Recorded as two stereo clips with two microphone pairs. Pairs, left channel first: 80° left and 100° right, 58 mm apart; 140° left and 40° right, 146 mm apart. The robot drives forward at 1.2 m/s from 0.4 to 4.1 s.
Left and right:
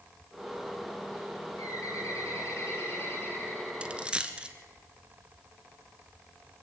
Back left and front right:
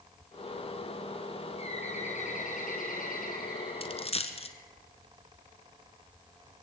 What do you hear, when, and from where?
1.6 s a bird: 95° left, 3.5 m; by 4.7 s 135° left, 5 m
3.8 s a dropped coin: 175° right, 1.2 m